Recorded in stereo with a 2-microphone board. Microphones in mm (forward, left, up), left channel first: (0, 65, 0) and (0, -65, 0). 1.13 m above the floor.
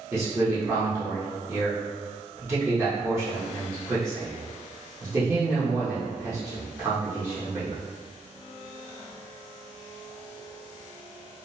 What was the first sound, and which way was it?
A man speaking, 20° right (ahead or behind).